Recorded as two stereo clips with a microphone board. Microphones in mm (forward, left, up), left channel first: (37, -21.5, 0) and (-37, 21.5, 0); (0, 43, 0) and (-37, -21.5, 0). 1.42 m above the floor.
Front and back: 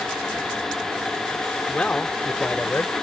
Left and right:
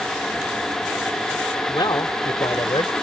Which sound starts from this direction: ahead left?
A man speaking, at 1.7 s.